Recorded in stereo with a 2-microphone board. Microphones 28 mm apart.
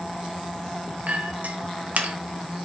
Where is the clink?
60° right (ahead or behind), 1.1 m.